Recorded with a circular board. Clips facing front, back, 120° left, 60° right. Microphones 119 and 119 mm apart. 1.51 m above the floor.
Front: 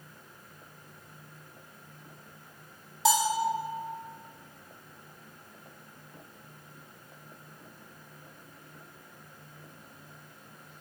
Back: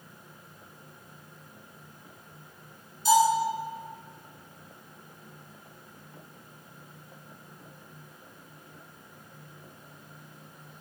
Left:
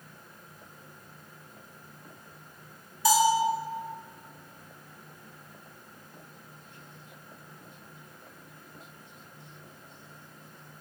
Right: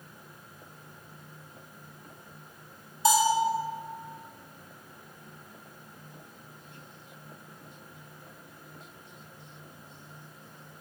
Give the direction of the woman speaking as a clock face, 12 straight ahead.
No woman speaking in this recording.